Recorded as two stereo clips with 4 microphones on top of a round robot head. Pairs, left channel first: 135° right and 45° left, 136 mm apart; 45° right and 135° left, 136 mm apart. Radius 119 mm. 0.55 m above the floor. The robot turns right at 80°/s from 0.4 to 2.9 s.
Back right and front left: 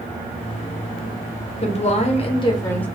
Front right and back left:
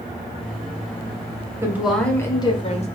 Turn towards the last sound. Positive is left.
turn(degrees=-55)